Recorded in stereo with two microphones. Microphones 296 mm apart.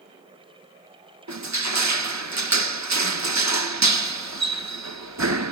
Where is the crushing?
70° right (ahead or behind), 0.8 m.